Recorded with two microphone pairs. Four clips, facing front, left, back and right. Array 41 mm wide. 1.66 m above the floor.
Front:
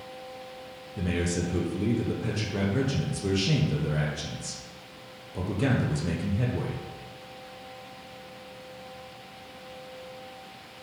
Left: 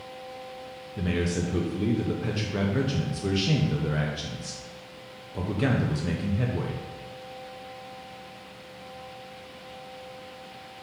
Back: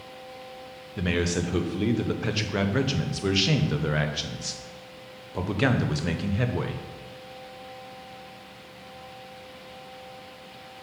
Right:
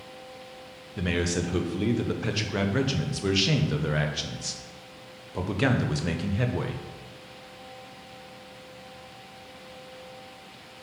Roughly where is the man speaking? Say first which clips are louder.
Even, back 3 dB; behind right.